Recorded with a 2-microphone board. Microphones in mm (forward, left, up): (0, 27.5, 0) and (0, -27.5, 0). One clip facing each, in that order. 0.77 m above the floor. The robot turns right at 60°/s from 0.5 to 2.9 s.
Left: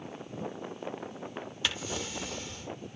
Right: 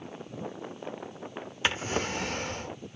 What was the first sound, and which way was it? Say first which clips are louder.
A drawer: right 7 dB; 135° right.